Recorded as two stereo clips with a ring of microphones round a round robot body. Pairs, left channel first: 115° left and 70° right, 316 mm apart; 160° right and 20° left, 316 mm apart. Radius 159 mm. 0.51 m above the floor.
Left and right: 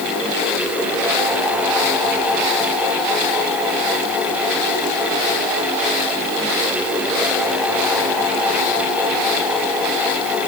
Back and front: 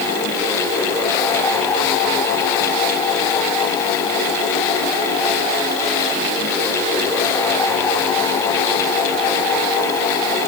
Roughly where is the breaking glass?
I don't hear breaking glass.